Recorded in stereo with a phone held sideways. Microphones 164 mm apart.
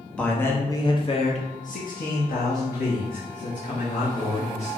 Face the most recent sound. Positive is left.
turn(degrees=60)  # may be behind; listen again after turning